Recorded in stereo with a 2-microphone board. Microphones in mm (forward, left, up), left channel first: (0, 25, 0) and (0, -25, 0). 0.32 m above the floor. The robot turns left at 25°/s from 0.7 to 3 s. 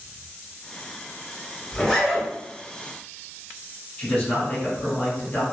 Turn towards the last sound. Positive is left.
turn(degrees=30)  # may be behind; listen again after turning